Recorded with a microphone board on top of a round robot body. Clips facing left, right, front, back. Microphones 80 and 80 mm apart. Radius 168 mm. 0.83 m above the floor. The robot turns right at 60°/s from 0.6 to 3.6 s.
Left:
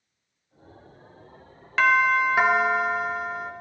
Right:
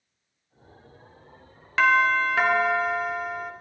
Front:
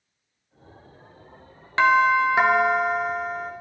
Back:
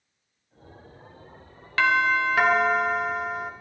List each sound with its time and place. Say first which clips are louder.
1.8 s a doorbell: even, front 4 dB; straight ahead, 0.8 m; by 3.5 s 105° left, 0.8 m